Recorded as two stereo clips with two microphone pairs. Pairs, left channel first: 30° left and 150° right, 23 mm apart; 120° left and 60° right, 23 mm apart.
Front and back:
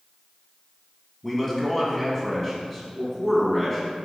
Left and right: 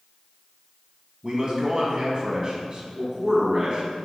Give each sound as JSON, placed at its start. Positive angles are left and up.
{"t": 1.2, "sound": "a man speaking", "azimuth_deg": -45, "distance_m": 1.5}